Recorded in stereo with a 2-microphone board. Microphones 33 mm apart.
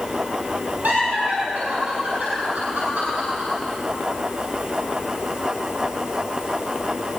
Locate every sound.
0.8 s laughter: 55° right (ahead or behind), 6 m